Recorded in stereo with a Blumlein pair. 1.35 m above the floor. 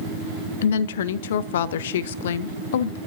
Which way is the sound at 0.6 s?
60° left.